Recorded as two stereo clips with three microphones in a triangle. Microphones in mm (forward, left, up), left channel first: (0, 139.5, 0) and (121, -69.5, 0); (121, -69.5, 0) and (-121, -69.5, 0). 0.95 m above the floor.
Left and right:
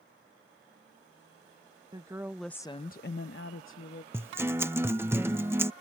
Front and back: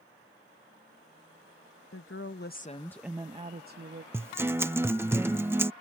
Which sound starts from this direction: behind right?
A guitar, at 4.1 s.